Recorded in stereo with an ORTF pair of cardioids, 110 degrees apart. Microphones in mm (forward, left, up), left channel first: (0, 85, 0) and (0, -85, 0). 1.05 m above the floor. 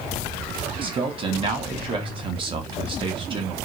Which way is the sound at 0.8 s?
30° right.